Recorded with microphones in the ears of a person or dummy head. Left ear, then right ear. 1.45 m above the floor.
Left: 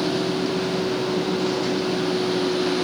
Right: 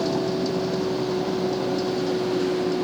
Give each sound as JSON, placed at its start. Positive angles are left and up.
{"t": 0.0, "sound": "a vehicle", "side_deg": -20}